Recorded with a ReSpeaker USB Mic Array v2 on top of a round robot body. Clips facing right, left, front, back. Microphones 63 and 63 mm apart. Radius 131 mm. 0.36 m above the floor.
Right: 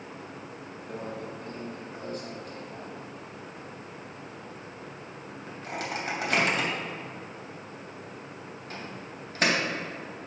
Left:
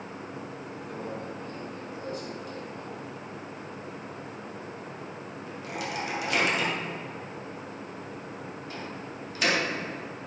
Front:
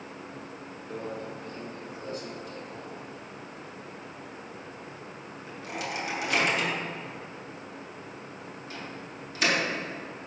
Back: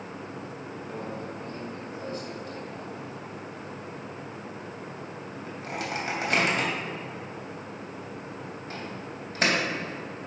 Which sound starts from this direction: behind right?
A microwave, at 0.9 s.